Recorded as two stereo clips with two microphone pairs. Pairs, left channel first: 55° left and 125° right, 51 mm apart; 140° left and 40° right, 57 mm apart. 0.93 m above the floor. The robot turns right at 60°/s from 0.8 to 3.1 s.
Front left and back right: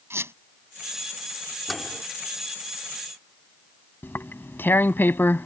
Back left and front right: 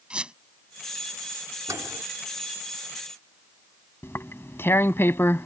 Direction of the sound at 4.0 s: 100° left.